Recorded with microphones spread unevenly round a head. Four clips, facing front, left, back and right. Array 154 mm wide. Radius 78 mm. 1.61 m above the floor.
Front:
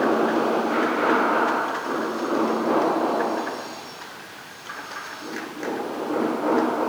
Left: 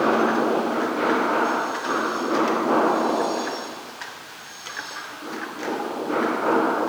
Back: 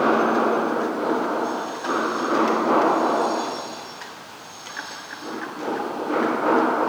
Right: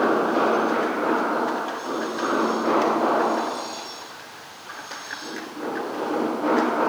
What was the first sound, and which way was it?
Only background noise.